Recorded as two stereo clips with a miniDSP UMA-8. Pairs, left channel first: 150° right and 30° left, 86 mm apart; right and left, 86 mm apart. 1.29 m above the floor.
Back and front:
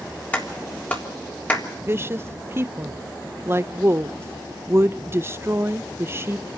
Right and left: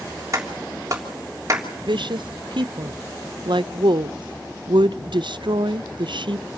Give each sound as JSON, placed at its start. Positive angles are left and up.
{"t": 0.3, "sound": "a clap", "azimuth_deg": 140, "distance_m": 3.5}
{"t": 1.9, "sound": "a woman speaking", "azimuth_deg": 90, "distance_m": 0.6}